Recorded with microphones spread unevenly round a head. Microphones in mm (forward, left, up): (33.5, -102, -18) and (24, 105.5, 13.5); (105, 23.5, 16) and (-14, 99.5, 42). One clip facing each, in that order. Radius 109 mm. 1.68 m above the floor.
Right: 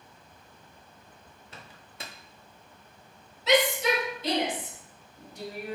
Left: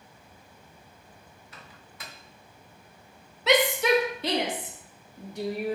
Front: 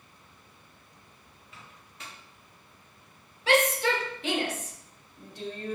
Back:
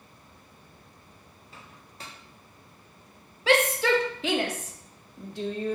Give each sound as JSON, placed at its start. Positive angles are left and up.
{"t": 1.5, "sound": "a microwave", "azimuth_deg": -155, "distance_m": 0.6}
{"t": 3.5, "sound": "a shout", "azimuth_deg": 135, "distance_m": 1.2}